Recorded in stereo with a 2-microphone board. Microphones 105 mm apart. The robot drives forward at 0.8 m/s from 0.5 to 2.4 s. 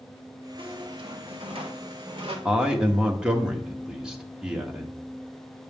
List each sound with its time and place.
0.6 s a squeak: 55° right (ahead or behind), 1.5 m; by 2.4 s 50° right (ahead or behind), 1.6 m
2.5 s a man speaking: 10° right (ahead or behind), 1.2 m